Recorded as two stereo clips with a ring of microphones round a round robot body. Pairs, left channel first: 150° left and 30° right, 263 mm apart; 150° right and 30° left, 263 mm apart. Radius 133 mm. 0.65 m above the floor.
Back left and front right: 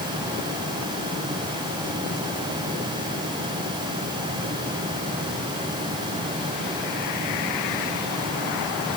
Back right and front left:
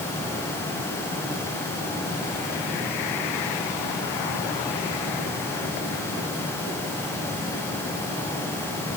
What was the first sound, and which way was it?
Only background noise.